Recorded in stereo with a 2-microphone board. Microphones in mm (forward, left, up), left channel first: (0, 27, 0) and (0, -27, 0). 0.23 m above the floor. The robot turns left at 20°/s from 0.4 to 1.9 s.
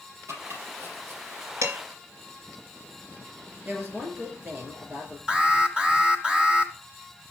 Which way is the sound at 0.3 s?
65° right (ahead or behind).